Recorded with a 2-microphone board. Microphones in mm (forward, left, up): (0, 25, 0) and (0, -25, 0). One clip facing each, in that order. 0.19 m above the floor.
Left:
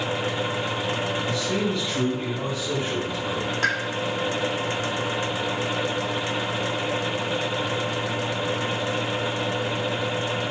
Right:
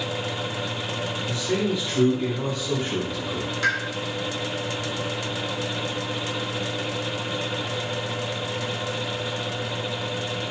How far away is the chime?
I don't hear a chime.